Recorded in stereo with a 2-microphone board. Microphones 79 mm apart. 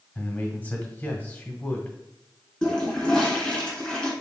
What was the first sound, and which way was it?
A man speaking, 20° left (ahead or behind).